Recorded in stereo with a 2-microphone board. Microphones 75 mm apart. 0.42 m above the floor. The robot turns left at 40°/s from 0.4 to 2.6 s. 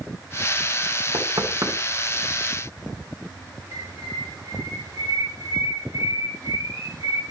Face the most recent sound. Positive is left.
turn(degrees=-55)  # may be behind; listen again after turning